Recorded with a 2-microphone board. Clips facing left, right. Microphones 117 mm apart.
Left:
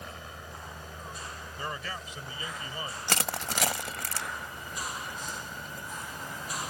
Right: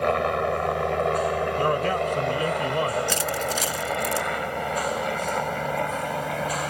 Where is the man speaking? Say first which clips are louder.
Right 13 dB; 55° right (ahead or behind).